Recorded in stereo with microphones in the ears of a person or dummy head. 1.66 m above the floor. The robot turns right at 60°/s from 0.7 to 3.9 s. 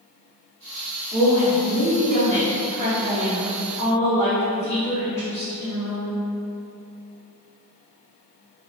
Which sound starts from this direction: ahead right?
A woman speaking, at 1.1 s.